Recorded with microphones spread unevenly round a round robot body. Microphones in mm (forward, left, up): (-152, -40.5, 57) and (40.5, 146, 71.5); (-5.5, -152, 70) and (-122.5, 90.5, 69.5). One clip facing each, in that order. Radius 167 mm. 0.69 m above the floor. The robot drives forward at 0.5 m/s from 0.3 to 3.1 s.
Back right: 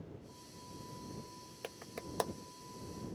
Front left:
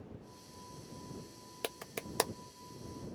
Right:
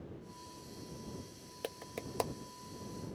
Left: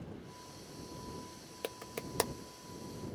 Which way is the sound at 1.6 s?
35° left.